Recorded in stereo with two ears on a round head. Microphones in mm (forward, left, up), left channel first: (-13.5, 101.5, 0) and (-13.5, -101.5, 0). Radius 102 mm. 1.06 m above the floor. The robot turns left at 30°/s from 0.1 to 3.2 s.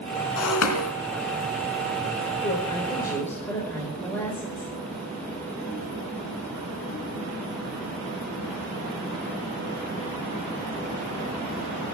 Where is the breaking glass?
70° left (ahead or behind), 3 m; by 0.9 s 75° left (ahead or behind), 3 m.